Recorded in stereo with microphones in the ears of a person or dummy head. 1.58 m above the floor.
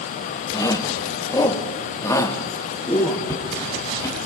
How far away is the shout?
About 2 m.